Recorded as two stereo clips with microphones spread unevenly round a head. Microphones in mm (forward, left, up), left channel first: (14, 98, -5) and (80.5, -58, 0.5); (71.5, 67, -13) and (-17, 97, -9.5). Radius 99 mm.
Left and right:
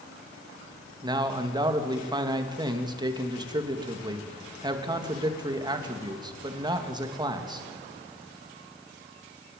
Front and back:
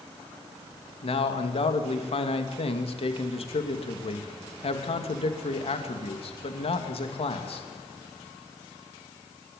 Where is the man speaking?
Straight ahead, 3 m.